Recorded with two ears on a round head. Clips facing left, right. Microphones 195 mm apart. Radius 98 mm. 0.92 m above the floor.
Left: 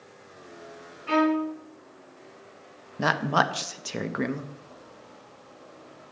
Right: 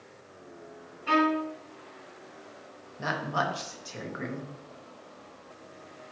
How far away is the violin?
About 4 m.